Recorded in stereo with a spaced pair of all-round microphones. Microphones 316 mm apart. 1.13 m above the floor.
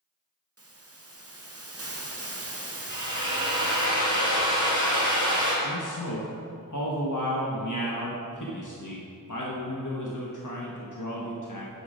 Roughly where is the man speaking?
Left.